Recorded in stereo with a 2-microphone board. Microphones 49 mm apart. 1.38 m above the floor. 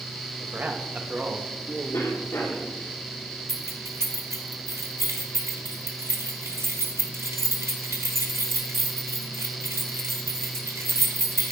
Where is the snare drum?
I don't hear a snare drum.